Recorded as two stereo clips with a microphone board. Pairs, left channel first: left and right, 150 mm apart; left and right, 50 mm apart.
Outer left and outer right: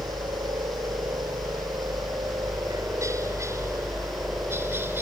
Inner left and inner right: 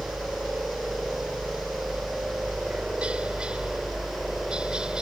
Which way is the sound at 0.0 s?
30° right (ahead or behind).